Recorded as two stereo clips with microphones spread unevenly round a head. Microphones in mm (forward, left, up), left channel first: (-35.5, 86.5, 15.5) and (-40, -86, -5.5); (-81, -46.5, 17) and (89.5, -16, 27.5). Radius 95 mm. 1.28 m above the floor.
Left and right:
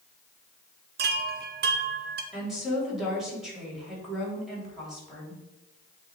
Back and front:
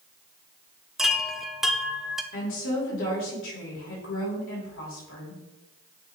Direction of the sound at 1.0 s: 80° right.